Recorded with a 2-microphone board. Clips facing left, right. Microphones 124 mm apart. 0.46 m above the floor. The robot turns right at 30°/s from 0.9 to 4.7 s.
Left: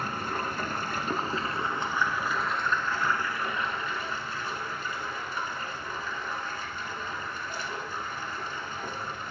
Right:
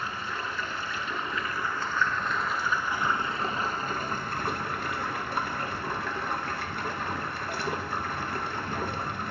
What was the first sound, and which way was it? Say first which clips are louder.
Running water: left 3 dB; 135° left.